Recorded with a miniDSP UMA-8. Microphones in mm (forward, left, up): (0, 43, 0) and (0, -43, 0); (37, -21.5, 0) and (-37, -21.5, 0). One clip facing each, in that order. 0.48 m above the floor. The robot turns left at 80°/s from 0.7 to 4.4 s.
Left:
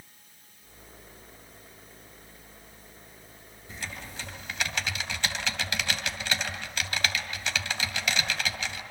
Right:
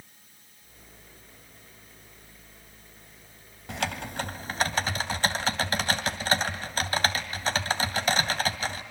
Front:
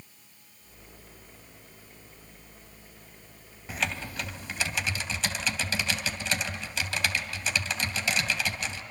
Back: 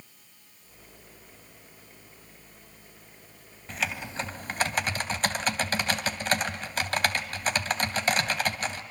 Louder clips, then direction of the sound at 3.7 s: Right 9 dB, even; 80° right.